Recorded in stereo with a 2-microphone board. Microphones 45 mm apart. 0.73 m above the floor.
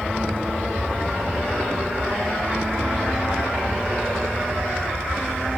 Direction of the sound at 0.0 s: 45° right (ahead or behind).